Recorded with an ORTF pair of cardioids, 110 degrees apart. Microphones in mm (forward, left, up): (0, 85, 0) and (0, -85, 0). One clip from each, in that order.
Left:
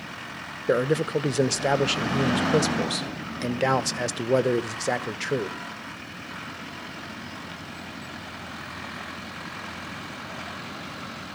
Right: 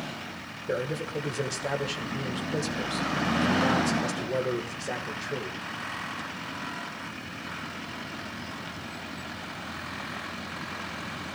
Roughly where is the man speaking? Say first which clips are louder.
Left 8 dB; ahead left.